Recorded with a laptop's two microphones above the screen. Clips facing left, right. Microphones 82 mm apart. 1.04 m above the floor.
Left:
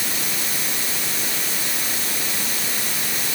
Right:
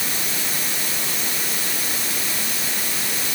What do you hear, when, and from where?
Only background noise.